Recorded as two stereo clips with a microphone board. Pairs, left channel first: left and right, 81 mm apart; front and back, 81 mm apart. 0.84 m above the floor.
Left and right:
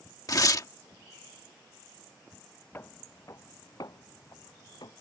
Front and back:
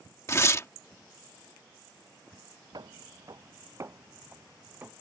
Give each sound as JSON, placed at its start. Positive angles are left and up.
{"t": 0.3, "sound": "tearing paper", "azimuth_deg": 50}
{"t": 2.7, "sound": "footsteps", "azimuth_deg": 150}